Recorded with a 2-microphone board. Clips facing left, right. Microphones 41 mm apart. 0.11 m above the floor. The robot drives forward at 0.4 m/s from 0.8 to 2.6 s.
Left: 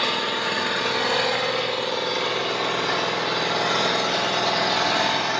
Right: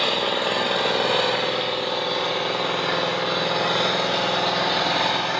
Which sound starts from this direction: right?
An engine running, at 0.0 s.